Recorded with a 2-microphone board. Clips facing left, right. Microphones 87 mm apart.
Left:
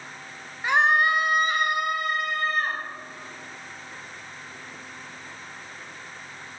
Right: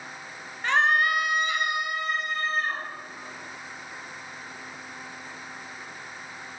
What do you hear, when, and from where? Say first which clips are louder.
0.6 s a scream: left 2 dB; 10° left (ahead or behind), 2 m; by 2.8 s 65° left (ahead or behind), 3.5 m